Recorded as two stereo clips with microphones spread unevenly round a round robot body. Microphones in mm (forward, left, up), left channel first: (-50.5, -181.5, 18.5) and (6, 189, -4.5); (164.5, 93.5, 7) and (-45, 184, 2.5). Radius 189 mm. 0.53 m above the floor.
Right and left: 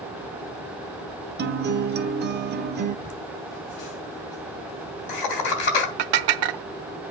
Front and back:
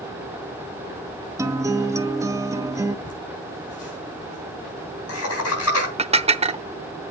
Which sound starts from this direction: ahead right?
Laughter, at 3.0 s.